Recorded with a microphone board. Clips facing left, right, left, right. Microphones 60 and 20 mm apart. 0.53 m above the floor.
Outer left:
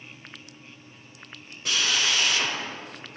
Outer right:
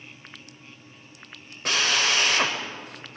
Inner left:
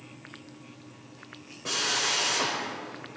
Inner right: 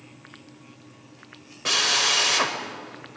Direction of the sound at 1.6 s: 55° right (ahead or behind).